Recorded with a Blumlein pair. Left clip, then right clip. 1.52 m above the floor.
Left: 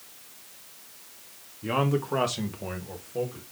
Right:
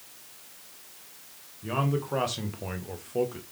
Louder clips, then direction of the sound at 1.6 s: Left 3 dB; 15° left.